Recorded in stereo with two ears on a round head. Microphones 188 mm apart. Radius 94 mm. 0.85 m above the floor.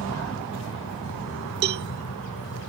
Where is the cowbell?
50° right (ahead or behind).